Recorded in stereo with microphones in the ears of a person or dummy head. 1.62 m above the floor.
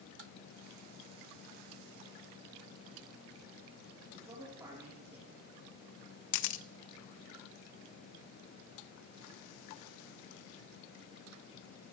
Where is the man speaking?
20° right (ahead or behind), 3 m.